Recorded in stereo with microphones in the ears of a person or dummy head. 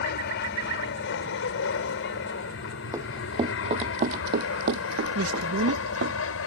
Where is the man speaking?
75° right (ahead or behind).